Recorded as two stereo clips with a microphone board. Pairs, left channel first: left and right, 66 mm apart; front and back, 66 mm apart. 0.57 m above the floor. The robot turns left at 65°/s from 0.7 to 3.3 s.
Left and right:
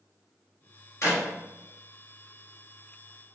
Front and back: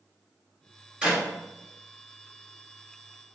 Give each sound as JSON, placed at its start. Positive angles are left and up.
{"t": 1.0, "sound": "a clap", "azimuth_deg": 115, "distance_m": 1.5}